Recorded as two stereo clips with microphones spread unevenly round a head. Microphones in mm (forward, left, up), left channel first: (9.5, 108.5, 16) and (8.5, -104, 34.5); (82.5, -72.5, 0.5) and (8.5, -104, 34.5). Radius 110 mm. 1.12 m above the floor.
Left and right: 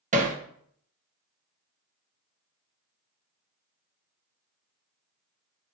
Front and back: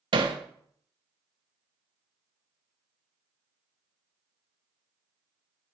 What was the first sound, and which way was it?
Hammering, 145° right.